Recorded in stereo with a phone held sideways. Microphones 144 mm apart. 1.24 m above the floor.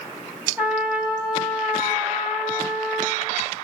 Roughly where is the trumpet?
Centre.